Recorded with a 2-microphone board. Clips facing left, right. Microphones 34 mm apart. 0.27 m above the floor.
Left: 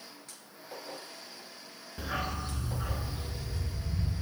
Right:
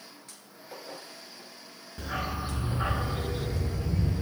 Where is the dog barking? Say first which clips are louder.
Right 2 dB; 10° left (ahead or behind), 1.0 m; by 4.2 s 80° right, 2 m.